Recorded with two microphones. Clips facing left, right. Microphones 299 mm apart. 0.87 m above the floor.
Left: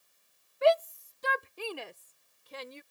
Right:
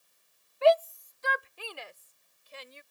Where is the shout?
20° left (ahead or behind); by 2.8 s 75° left (ahead or behind).